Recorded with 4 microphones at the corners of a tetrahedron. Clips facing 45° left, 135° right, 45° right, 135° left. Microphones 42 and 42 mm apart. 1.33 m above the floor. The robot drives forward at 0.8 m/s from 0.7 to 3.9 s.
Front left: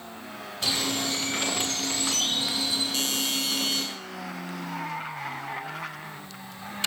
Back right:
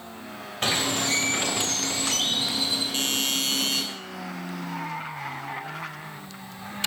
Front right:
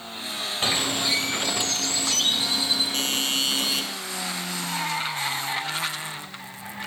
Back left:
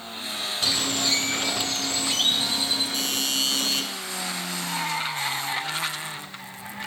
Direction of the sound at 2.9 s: 80° right.